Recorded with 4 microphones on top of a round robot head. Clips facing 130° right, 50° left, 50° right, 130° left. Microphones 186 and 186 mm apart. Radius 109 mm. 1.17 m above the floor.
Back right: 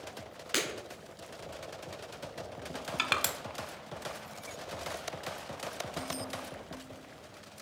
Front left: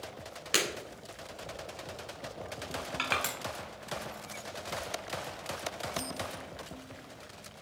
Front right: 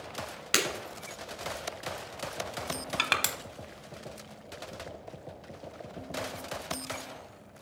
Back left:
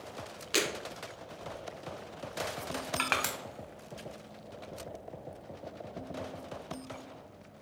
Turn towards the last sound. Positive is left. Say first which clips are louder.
# even, even
turn(degrees=-95)